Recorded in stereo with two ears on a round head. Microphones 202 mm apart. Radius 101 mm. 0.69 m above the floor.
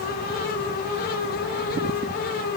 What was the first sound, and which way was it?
Only background noise.